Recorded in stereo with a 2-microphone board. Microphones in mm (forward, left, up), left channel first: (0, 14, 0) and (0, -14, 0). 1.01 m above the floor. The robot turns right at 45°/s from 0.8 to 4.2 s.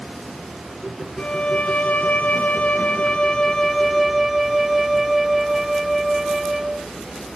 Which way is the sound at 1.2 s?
45° left.